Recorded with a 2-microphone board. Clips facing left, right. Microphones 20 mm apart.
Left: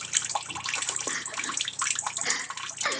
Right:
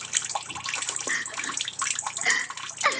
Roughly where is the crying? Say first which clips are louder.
Right 6 dB; right.